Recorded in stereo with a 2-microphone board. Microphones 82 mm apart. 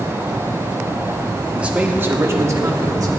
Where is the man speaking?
15° right (ahead or behind), 1.0 m; by 3.1 s 50° right (ahead or behind), 1.4 m.